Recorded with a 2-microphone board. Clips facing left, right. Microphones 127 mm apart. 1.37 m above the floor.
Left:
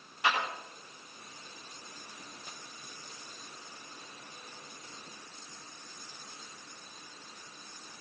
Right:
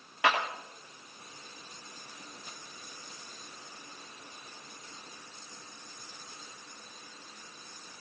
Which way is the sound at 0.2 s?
85° right.